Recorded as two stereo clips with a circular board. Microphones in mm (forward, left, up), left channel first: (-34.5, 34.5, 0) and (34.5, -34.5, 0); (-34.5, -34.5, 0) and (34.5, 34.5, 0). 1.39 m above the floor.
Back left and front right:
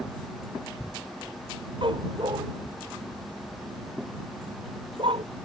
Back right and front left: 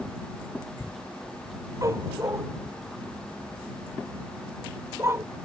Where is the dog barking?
10° right; by 5.2 s 20° right.